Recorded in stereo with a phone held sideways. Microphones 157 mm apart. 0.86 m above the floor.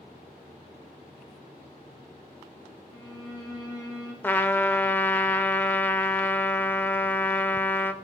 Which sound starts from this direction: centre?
A trumpet, at 4.2 s.